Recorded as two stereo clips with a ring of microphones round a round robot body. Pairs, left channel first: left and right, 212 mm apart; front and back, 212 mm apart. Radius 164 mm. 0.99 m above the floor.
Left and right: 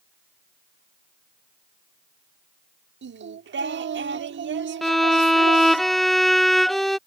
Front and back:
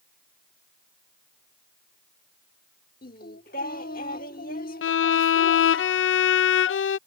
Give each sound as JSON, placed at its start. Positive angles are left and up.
{"t": 3.0, "sound": "singing", "azimuth_deg": -60}
{"t": 4.8, "sound": "a violin", "azimuth_deg": 0}